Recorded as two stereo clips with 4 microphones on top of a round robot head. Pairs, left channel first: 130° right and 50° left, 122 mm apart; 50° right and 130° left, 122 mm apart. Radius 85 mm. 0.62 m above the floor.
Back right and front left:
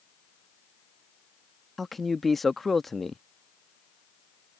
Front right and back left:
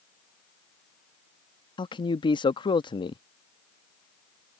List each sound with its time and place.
1.8 s a man speaking: 45° right